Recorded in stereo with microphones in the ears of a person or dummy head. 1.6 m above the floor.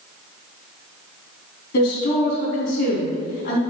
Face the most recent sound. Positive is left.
turn(degrees=70)  # may be behind; listen again after turning